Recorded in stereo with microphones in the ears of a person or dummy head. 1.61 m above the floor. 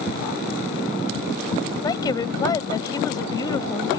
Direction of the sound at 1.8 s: 25° left (ahead or behind).